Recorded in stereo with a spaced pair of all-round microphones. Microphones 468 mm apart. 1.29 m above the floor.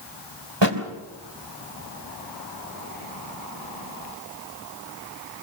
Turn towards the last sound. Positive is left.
turn(degrees=-60)  # may be behind; listen again after turning